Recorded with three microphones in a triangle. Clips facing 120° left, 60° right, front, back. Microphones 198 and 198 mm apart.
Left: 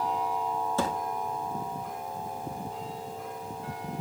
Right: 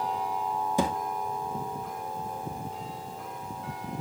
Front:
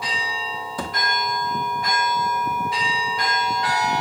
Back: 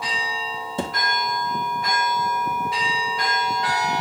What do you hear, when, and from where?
0.8 s a thud: 130° right, 1.0 m